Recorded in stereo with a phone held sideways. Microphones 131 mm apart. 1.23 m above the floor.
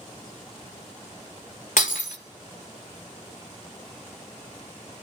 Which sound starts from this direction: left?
Breaking glass, at 1.8 s.